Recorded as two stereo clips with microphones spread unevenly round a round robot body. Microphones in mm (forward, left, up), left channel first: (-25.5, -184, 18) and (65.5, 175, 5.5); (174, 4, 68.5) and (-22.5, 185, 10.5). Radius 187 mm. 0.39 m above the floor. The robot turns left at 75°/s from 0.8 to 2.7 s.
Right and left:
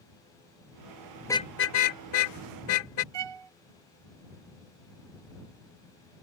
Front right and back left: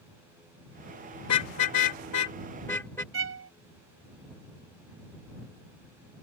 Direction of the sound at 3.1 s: 100° left.